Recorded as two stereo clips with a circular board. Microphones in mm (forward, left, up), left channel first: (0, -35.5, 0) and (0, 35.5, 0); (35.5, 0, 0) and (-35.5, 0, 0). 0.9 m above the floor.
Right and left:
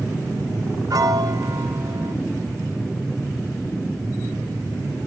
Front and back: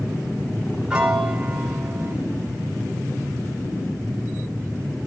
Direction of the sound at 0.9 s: 105° left.